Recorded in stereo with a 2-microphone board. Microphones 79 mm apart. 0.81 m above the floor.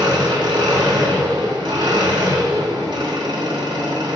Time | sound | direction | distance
0.0 | an engine running | 75° right (ahead or behind) | 1.0 m